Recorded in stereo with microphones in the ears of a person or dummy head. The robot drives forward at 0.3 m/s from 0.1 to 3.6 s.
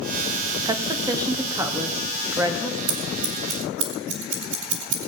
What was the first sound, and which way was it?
A woman speaking, 15° right (ahead or behind).